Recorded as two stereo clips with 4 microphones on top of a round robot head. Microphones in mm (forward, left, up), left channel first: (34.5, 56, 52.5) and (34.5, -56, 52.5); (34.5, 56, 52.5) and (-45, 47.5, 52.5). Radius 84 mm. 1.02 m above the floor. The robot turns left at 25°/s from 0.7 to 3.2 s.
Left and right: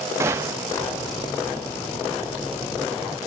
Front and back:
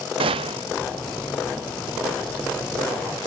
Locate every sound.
0.2 s a gunshot: 160° right, 0.6 m